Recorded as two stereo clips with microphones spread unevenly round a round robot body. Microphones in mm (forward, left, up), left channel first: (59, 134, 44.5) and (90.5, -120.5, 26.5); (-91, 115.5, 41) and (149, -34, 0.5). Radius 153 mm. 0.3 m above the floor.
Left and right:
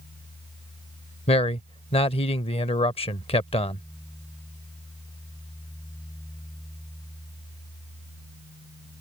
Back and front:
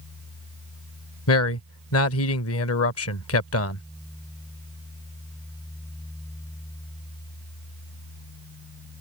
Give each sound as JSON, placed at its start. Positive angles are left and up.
{"t": 1.3, "sound": "a man speaking", "azimuth_deg": 160}